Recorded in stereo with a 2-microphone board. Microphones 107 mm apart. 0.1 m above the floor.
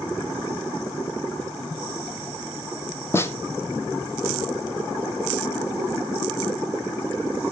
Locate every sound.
3.1 s a snare drum: 20° left (ahead or behind), 0.7 m